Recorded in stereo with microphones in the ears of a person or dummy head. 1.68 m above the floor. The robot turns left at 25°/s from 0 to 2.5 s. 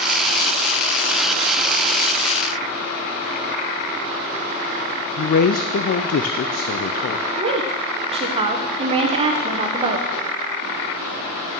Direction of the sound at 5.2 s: 50° left (ahead or behind).